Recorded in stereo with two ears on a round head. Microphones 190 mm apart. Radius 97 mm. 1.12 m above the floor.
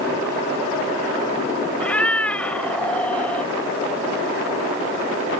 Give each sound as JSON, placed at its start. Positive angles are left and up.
{"t": 1.8, "sound": "a cat meowing", "side_deg": 5}